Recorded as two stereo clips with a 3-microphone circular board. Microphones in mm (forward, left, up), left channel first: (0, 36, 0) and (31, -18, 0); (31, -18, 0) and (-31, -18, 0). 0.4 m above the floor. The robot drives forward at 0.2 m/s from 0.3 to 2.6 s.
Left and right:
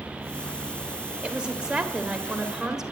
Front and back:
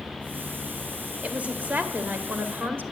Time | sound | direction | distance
1.2 | a woman speaking | 125° right | 1.3 m